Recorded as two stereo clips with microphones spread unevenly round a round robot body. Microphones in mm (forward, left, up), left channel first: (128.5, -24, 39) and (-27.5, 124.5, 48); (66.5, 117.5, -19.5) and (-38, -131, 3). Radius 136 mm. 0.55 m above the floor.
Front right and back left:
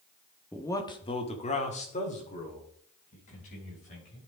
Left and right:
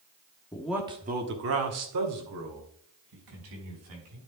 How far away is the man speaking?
About 1.2 m.